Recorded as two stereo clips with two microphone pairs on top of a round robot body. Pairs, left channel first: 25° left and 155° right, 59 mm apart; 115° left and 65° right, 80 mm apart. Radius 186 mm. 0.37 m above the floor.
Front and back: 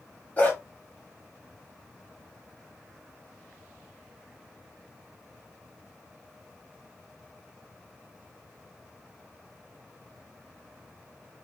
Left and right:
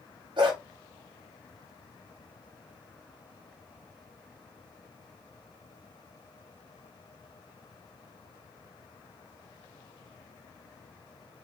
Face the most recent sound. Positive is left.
turn(degrees=-40)